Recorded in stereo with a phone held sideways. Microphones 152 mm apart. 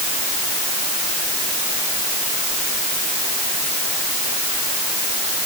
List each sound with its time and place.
Only background noise.